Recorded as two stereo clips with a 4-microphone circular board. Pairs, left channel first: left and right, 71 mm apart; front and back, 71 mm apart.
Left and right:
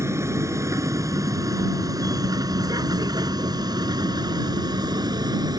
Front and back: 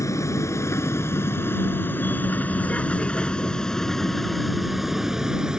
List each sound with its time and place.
0.0 s a vehicle: 45° right; by 5.6 s 100° right